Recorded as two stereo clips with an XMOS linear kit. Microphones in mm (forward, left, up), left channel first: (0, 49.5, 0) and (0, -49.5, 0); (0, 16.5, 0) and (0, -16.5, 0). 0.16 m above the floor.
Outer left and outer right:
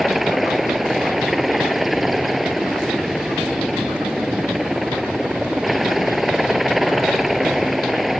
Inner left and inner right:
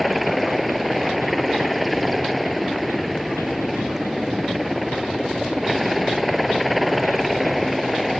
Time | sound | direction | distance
0.0 | a helicopter | centre (ahead or behind) | ?